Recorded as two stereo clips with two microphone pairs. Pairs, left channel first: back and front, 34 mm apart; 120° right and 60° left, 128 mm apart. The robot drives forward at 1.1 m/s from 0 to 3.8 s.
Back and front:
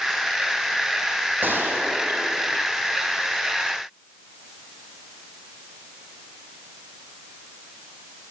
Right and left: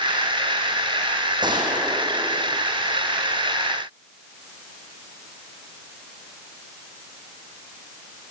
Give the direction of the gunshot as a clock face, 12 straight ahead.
12 o'clock.